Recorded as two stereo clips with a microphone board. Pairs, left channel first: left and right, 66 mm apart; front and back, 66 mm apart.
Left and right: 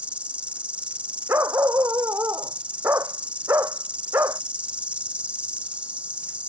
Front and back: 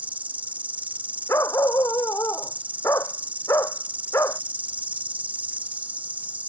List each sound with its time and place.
0.0 s an insect: 140° right
1.3 s a dog barking: 40° right